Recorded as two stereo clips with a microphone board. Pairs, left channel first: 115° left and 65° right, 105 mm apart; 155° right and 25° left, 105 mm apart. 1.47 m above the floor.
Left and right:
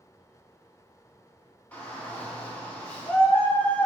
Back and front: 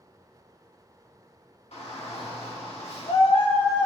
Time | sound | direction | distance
1.7 | a shout | 175° right | 1.9 m